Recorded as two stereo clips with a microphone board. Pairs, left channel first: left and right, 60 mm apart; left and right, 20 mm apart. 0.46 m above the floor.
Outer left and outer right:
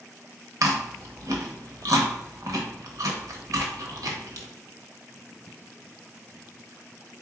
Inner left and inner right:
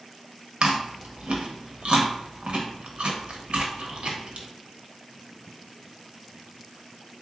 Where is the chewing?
65° right (ahead or behind), 0.8 m.